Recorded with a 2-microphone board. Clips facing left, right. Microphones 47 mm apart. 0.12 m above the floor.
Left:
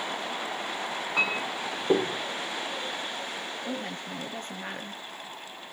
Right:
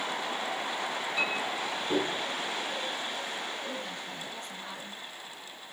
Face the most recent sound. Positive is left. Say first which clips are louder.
# left 3 dB
turn(degrees=50)  # may be behind; listen again after turning